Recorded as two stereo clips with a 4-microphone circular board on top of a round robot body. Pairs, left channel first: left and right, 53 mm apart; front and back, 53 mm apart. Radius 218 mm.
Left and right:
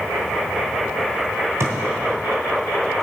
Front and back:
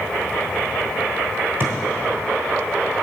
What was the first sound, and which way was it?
A thud, 125° right.